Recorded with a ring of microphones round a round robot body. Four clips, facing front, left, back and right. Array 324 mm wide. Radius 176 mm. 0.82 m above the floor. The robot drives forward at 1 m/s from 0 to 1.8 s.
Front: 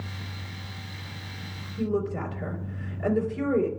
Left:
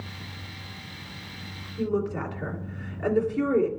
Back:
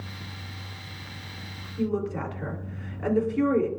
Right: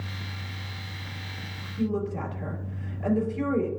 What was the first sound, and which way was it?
A woman speaking, 130° left.